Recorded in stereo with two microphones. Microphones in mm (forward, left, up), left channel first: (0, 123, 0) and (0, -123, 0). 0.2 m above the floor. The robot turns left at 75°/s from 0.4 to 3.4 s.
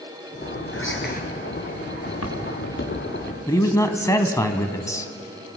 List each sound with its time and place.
0.7 s whispering: 70° left, 3.5 m; by 1.2 s 35° left, 3.5 m
2.1 s footsteps: 80° left, 5 m; by 3.4 s 5° left (ahead or behind), 5.5 m
3.5 s a man speaking: 15° left (ahead or behind), 1.6 m